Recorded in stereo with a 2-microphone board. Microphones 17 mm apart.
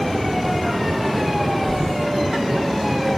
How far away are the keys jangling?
About 0.8 m.